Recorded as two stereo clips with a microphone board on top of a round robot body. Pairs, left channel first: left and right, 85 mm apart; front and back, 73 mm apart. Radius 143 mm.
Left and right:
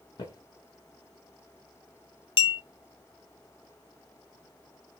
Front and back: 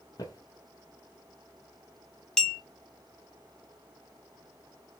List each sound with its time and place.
0.2 s footsteps: 45° left, 1.0 m
2.4 s a clink: 85° left, 0.6 m